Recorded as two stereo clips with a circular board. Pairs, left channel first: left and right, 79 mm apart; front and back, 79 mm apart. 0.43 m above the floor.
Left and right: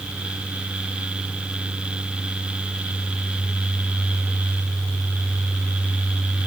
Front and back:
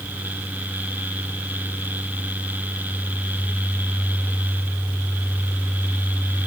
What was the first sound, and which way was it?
Only background noise.